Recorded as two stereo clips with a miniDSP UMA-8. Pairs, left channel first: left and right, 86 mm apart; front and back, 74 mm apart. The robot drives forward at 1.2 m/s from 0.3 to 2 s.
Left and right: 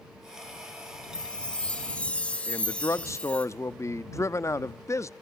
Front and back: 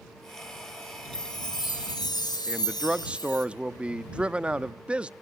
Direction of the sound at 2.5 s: 115° left.